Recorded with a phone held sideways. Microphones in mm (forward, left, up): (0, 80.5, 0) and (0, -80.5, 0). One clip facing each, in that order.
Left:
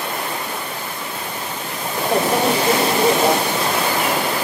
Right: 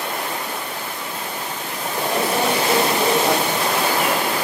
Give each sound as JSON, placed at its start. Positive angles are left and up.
{"t": 2.1, "sound": "a microwave", "side_deg": 40, "distance_m": 1.3}